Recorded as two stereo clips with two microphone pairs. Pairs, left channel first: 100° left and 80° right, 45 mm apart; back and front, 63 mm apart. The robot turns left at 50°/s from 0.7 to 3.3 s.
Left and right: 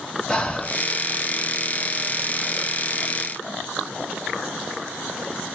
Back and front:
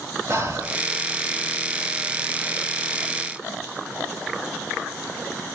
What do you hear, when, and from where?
0.3 s breathing: 35° left, 0.9 m; by 0.8 s 30° left, 0.9 m